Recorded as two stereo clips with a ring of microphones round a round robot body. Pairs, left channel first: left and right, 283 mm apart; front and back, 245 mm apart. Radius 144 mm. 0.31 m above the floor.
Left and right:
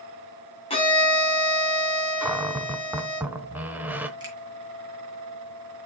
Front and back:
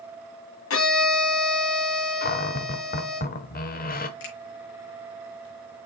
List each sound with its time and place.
0.7 s a violin: 20° left, 2.5 m
2.2 s a cupboard door: 10° right, 0.9 m
4.2 s a finger snap: 15° right, 4.5 m